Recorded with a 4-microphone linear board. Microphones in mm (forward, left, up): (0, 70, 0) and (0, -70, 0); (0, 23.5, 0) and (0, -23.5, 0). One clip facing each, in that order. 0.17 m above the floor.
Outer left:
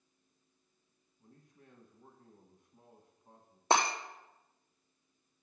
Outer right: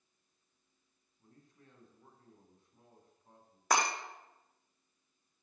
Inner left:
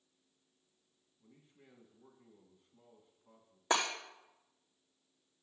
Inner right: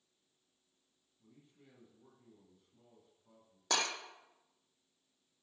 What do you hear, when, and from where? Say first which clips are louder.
1.2 s a man speaking: outer left 1 dB, even; 15° left (ahead or behind), 1.5 m
3.7 s breaking glass: outer left 2 dB, inner left 3 dB; 30° left (ahead or behind), 1.2 m